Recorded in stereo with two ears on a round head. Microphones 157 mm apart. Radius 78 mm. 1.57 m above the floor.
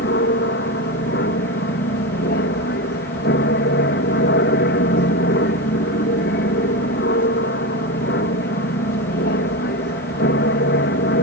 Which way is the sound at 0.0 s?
65° left (ahead or behind).